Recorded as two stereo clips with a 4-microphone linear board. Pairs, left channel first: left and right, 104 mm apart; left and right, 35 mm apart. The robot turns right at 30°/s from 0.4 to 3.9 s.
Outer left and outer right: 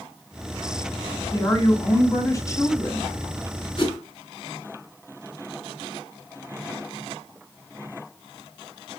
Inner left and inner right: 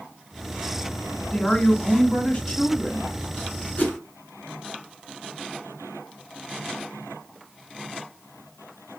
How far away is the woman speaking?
About 1.8 m.